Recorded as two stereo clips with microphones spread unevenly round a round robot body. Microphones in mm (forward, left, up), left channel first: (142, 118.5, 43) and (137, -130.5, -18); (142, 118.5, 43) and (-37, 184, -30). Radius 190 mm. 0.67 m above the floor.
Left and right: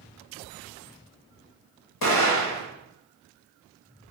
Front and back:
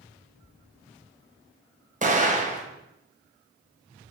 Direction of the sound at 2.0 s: 105° left.